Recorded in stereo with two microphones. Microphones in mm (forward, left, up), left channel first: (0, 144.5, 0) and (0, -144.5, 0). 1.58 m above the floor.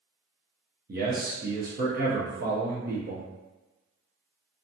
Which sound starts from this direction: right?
A man speaking, at 0.9 s.